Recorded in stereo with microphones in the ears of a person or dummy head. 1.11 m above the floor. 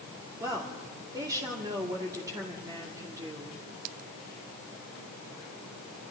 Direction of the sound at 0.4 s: 20° right (ahead or behind).